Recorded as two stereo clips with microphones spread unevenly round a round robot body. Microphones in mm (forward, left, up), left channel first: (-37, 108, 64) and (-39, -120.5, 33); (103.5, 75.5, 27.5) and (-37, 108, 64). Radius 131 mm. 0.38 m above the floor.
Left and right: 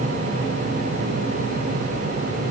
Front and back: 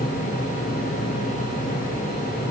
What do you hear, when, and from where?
Only background noise.